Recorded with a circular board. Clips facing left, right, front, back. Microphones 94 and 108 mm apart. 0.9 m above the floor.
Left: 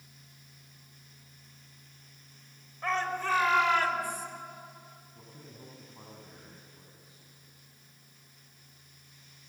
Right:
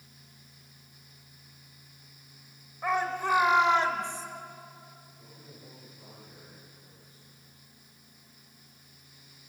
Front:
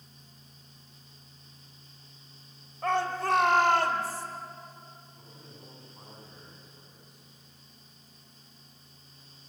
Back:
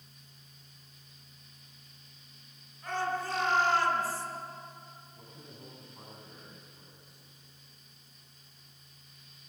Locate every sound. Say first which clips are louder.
2.8 s a shout: right 2 dB, front 5 dB; 10° right, 3.5 m; by 4.3 s 30° right, 3 m
5.2 s a man speaking: left 4 dB, even; 95° left, 7.5 m